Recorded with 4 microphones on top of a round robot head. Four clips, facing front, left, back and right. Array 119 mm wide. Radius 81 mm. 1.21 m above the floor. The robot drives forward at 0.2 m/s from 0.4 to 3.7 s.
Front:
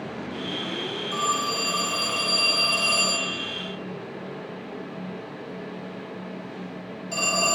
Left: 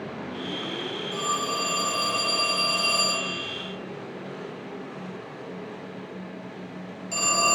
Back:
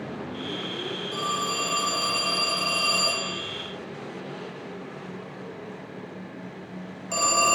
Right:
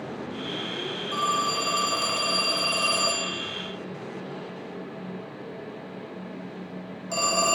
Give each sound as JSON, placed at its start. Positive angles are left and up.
{"t": 1.1, "sound": "a phone ringing", "azimuth_deg": -65, "distance_m": 0.6}